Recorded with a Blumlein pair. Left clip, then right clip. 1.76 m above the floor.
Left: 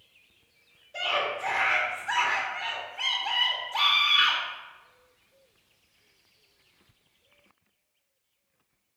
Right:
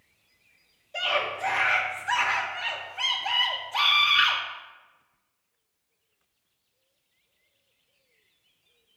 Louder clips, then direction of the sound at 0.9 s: Right 1 dB; 10° right.